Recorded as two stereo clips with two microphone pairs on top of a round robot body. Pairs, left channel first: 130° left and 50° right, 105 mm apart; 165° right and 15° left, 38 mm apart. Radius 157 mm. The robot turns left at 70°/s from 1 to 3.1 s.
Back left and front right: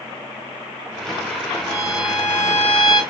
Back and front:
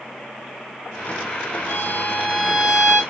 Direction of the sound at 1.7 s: 160° right.